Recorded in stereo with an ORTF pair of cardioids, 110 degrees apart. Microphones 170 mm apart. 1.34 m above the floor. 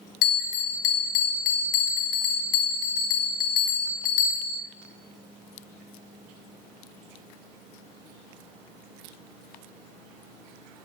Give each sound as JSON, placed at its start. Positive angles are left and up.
{"t": 0.2, "sound": "a bell", "azimuth_deg": 65, "distance_m": 0.6}